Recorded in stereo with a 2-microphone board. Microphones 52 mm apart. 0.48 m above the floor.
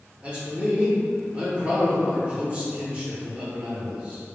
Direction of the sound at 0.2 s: 25° right (ahead or behind).